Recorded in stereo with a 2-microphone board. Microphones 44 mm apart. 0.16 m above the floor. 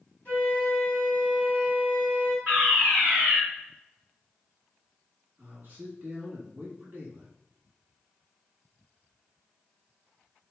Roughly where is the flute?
Left.